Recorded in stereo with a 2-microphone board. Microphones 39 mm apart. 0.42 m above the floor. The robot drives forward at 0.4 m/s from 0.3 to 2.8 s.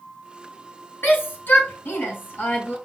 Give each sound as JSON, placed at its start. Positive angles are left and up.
{"t": 1.0, "sound": "a shout", "side_deg": 70, "distance_m": 4.0}